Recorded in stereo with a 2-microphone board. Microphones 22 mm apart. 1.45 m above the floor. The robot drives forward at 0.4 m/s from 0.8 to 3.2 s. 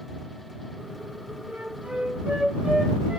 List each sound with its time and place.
1.5 s a flute: 75° right (ahead or behind), 0.7 m; by 3.2 s 40° right (ahead or behind), 1.1 m